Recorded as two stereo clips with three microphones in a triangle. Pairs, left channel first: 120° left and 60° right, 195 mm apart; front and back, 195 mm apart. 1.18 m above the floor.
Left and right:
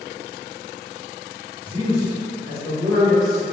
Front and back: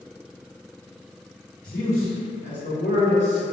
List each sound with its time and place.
1.6 s a man speaking: 55° right, 1.2 m; by 3.4 s 20° left, 1.1 m